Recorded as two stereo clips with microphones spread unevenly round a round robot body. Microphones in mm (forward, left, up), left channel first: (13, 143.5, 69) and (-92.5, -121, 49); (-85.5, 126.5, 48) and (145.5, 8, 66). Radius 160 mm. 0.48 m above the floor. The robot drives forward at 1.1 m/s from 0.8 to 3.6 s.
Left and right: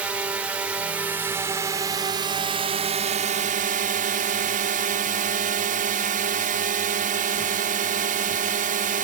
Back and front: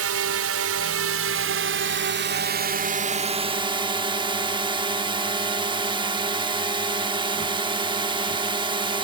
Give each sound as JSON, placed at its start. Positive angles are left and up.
{"t": 0.0, "sound": "a drone", "azimuth_deg": -30}